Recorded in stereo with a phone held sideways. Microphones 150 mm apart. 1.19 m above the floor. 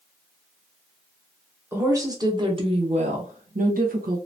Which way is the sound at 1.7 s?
15° right (ahead or behind).